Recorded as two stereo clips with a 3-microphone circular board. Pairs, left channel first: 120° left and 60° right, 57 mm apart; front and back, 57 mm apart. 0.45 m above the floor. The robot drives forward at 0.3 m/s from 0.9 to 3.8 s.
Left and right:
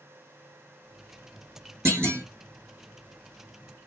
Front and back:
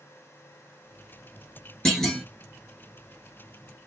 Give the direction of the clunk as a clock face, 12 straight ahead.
3 o'clock.